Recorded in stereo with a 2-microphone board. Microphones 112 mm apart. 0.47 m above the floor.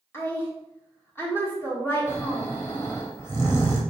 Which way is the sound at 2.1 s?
20° left (ahead or behind).